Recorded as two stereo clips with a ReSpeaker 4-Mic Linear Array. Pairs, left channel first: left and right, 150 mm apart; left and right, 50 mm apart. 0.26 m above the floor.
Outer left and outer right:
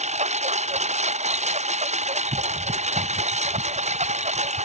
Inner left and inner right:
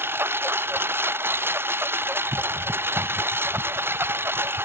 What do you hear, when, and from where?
0.0 s a lawn mower: 45° right (ahead or behind)